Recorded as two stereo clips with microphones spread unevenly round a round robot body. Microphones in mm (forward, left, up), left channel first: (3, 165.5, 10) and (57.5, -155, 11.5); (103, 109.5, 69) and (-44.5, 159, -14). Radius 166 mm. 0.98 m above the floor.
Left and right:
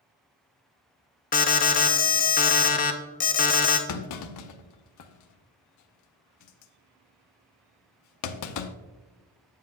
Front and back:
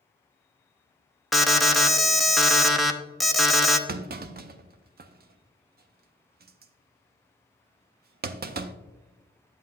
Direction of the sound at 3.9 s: 115° left.